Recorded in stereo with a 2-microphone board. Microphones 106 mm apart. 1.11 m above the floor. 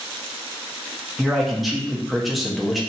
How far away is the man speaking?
About 0.5 m.